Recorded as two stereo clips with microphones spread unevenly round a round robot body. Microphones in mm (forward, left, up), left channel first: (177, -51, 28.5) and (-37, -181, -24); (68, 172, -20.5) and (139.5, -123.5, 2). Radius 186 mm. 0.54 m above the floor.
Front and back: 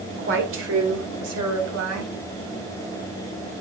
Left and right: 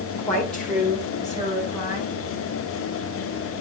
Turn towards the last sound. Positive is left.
turn(degrees=-155)